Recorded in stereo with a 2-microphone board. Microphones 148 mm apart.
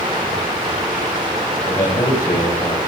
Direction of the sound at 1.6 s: 30° left (ahead or behind).